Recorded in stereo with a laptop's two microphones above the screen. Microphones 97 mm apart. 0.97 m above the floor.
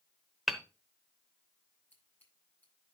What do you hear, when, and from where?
0.5 s hammering: 5° right (ahead or behind), 0.9 m
1.9 s scissors: 20° left (ahead or behind), 8.5 m